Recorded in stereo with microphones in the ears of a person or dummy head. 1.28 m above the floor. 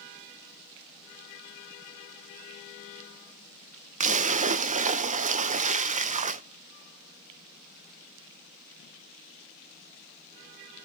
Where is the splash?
35° right (ahead or behind), 0.8 m.